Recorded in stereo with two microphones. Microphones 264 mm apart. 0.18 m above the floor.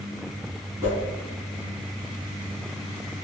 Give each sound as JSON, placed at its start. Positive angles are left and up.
{"t": 0.8, "sound": "a whoosh", "side_deg": -10, "distance_m": 1.4}